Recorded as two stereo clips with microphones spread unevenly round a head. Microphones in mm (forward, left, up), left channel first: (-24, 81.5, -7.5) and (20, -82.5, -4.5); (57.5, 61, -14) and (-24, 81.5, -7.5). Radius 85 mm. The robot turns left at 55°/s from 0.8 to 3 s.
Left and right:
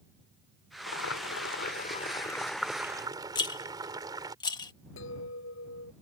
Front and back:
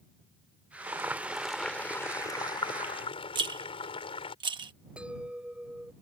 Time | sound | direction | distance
0.9 | boiling | 110° left | ?
3.4 | a rattle | 170° left | ?
5.0 | a clink | 90° left | ?